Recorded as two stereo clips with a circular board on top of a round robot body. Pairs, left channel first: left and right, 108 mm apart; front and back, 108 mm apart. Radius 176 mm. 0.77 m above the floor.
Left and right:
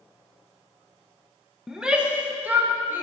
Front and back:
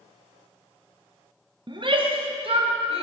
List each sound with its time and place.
1.7 s a shout: 175° right, 0.9 m; by 3.0 s 160° right, 1.5 m